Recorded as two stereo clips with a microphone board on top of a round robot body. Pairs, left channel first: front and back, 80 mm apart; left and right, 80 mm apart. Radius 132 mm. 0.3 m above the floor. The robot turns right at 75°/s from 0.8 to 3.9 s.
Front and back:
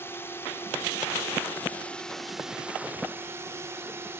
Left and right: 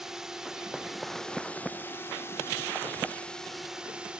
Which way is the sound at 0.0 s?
10° right.